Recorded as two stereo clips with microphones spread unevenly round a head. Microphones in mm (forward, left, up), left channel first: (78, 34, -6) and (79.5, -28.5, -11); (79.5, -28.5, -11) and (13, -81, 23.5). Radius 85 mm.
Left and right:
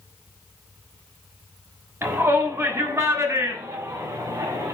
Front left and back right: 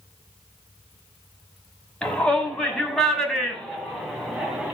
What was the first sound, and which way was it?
A shout, 45° right.